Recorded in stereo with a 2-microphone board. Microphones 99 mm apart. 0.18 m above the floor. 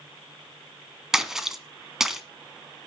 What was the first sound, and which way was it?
A splash, 5° right (ahead or behind).